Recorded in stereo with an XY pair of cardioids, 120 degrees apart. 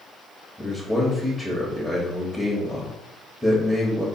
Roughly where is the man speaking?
Ahead.